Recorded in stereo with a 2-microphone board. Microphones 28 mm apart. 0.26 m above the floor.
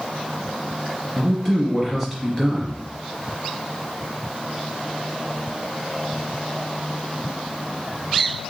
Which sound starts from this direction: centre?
A man speaking, at 1.2 s.